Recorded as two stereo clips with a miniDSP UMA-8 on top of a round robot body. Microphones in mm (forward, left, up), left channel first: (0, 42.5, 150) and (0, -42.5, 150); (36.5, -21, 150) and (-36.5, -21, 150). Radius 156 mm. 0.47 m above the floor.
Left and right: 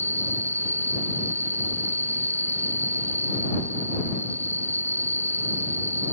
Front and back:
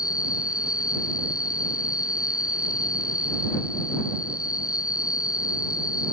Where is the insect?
30° right.